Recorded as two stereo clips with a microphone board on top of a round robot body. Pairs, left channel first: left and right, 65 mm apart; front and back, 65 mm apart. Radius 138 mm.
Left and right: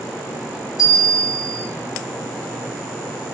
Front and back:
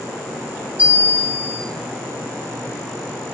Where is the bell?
110° left, 1.0 m.